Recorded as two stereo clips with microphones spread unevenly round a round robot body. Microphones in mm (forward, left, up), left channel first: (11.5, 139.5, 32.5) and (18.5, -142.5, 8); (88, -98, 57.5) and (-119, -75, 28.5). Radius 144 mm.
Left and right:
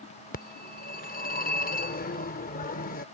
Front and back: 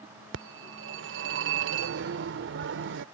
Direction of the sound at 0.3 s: 155° left.